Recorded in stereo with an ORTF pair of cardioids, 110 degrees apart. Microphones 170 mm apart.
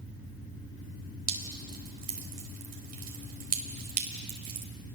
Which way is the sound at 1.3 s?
60° right.